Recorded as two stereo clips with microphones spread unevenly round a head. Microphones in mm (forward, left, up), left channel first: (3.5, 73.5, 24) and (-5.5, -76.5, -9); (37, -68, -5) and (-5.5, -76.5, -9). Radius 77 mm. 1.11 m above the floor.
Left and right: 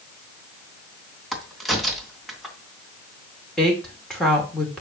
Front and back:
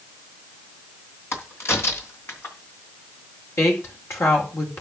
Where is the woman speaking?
Straight ahead, 4.5 m.